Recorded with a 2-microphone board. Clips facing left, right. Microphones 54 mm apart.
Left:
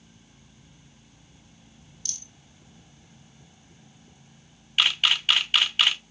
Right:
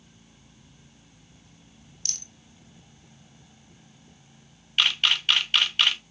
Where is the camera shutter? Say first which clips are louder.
Even; 5° left (ahead or behind), 1.1 m.